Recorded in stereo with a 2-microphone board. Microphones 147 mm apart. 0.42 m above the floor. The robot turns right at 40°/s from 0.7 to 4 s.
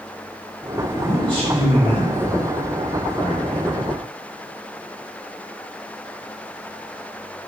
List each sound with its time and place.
0.9 s a man speaking: 75° left, 1.9 m; by 3.8 s 170° right, 1.9 m